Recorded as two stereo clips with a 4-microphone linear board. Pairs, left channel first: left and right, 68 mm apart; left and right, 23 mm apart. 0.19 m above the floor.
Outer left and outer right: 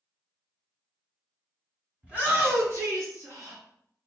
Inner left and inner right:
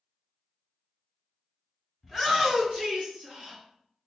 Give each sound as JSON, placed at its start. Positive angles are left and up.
{"t": 2.0, "sound": "a shout", "side_deg": -20, "distance_m": 1.6}